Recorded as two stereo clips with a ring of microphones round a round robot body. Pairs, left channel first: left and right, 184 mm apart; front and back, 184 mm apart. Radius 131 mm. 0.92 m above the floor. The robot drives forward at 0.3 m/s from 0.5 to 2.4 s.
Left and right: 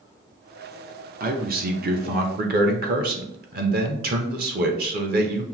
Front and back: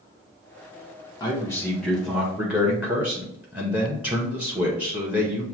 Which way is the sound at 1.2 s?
70° right.